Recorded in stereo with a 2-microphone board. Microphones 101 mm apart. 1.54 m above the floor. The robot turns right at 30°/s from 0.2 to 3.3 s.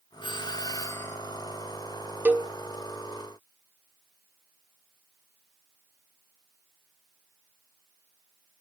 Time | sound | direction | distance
0.2 | a doorbell | 45° left (ahead or behind) | 1.6 m
2.2 | a cowbell | 15° right (ahead or behind) | 0.6 m